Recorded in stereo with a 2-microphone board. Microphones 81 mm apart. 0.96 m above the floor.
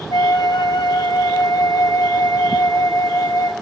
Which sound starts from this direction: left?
A flute, at 0.1 s.